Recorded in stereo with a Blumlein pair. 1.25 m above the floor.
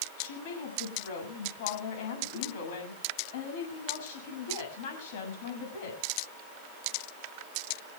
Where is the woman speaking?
50° left, 7 m.